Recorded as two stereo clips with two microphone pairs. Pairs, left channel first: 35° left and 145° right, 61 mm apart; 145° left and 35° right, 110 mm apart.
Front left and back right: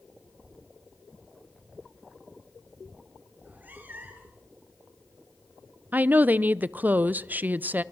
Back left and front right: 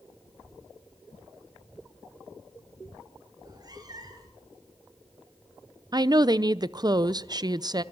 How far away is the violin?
No violin in this recording.